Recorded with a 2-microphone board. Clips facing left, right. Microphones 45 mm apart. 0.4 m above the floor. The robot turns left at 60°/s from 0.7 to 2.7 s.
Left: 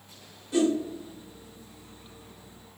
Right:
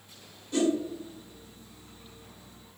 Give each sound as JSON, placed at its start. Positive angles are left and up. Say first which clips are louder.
{"t": 0.5, "sound": "a whoosh", "louder": "left 2 dB", "side_deg": 10, "distance_m": 1.0}